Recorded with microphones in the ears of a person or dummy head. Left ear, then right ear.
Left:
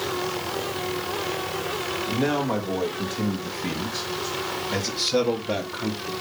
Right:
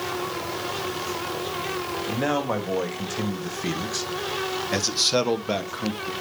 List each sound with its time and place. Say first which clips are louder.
2.1 s a man speaking: even; 60° right (ahead or behind), 3 m; by 6.1 s 30° right (ahead or behind), 1.6 m